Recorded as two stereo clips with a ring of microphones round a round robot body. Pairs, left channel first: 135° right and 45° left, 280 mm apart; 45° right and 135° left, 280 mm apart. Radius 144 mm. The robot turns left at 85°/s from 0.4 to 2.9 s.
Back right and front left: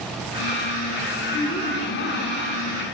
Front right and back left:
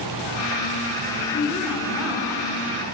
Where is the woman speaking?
85° right, 1.0 m; by 2.9 s 150° left, 1.0 m.